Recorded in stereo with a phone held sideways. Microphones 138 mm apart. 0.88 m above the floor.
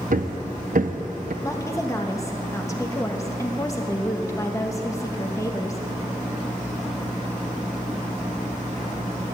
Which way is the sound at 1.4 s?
20° left (ahead or behind).